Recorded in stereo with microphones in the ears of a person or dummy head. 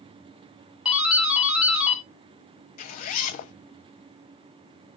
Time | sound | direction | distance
0.8 | a doorbell | 5° right (ahead or behind) | 0.9 m
2.8 | a zipper | 40° left (ahead or behind) | 0.5 m